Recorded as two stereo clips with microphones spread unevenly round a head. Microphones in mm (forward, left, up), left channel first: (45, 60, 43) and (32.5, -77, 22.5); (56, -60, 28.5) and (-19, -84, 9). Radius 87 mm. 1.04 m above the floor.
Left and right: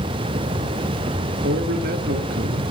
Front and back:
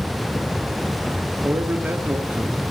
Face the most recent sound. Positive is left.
turn(degrees=-95)